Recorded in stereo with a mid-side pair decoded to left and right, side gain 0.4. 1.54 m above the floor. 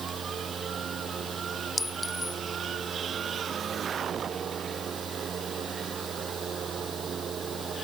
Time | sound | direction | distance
0.0 | a fan | 50° right | ?
1.8 | a clink | 25° left | ?